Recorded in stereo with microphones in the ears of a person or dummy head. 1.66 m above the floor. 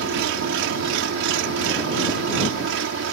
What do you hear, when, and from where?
0.0 s an engine running: 75° right (ahead or behind)